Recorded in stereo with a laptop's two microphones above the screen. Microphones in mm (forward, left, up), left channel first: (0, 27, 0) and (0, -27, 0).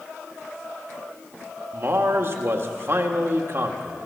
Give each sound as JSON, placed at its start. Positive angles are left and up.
{"t": 1.7, "sound": "a man speaking", "side_deg": -50, "distance_m": 1.7}